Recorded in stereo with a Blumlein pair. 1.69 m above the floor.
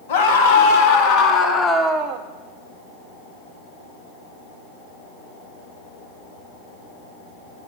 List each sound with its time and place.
0.1 s a scream: 55° left, 1.7 m; by 2.2 s 35° right, 0.5 m